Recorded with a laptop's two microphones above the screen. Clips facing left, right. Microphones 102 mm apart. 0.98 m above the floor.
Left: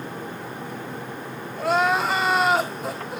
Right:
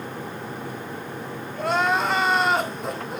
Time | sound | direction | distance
1.6 | crying | centre (ahead or behind) | 1.6 m